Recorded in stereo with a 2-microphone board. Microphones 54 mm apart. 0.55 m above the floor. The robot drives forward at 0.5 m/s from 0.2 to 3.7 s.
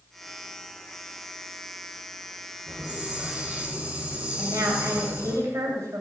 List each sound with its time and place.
2.7 s a hiss: 20° right (ahead or behind), 5.5 m
4.4 s a woman speaking: 70° right (ahead or behind), 2.5 m